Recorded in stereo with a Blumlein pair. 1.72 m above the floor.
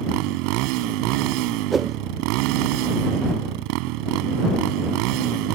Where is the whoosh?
15° right.